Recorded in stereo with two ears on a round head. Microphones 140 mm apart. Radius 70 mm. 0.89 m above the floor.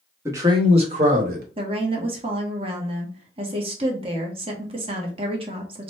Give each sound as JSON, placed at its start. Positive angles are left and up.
{"t": 0.2, "sound": "a man speaking", "side_deg": -15, "distance_m": 0.9}
{"t": 1.6, "sound": "a woman speaking", "side_deg": -35, "distance_m": 1.0}